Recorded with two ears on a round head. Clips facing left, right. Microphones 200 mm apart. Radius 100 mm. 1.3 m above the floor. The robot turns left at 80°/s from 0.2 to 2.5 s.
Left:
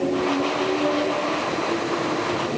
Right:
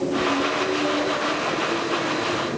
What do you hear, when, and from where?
Only background noise.